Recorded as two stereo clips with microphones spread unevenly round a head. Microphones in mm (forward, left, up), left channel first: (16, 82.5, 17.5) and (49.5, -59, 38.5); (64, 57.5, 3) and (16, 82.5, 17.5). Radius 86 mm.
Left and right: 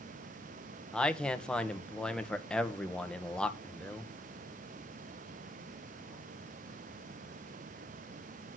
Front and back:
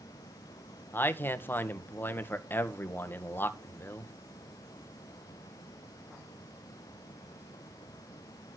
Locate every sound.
0.9 s a man speaking: 20° left, 1.9 m